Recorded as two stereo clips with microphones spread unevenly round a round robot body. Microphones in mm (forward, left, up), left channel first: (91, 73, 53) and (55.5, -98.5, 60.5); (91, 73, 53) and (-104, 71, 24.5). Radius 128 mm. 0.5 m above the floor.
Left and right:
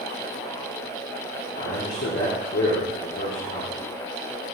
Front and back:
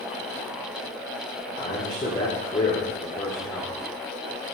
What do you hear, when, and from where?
1.6 s a man speaking: 60° left, 1.5 m